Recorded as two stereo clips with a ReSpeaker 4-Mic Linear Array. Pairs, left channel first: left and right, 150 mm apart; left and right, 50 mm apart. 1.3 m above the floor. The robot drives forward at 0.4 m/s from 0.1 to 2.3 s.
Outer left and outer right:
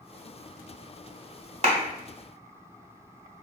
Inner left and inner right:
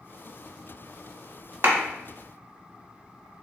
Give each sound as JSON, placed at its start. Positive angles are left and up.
{"t": 1.6, "sound": "a clap", "side_deg": -50, "distance_m": 1.1}